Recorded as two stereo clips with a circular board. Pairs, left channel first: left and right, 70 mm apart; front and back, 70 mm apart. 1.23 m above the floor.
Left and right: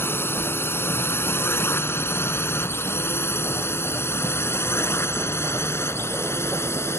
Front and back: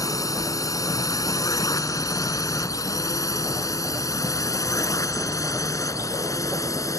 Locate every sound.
0.0 s a drone: 35° left; by 7.0 s 40° left